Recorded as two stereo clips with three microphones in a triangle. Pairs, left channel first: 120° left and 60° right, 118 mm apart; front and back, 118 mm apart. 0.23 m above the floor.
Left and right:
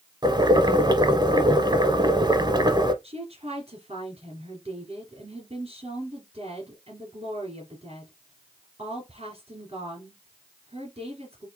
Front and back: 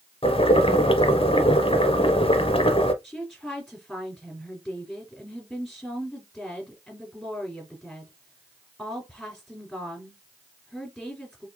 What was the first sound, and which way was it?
Boiling, 15° right.